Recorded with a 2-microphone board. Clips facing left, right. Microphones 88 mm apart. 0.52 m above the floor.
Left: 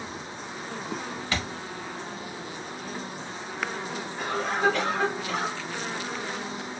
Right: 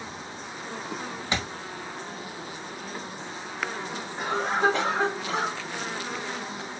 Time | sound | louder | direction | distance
1.3 | a thud | right 1 dB | 20° right (ahead or behind) | 0.6 m
4.2 | a cough | right 2 dB | 25° right (ahead or behind) | 1.8 m